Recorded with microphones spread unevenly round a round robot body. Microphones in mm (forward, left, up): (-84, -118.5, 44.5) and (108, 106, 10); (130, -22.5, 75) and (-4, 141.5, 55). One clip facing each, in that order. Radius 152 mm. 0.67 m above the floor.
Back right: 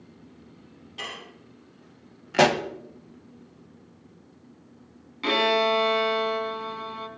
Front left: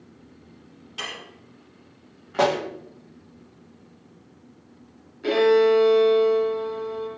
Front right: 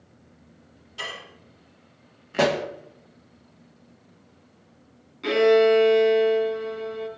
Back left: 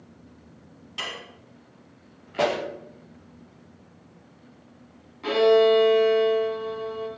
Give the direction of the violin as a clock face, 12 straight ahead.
4 o'clock.